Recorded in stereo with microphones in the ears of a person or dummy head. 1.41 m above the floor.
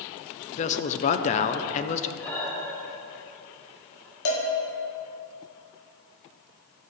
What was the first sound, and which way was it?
A man speaking, 35° left (ahead or behind).